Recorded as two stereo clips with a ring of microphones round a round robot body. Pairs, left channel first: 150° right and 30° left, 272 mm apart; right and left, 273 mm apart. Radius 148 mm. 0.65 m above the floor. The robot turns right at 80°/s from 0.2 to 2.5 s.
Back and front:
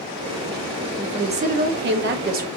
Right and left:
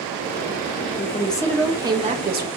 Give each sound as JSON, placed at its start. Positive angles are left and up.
{"t": 1.0, "sound": "a woman speaking", "azimuth_deg": -50, "distance_m": 0.8}